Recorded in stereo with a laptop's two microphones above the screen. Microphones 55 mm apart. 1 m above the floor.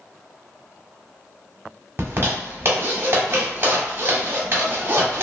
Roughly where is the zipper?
Right.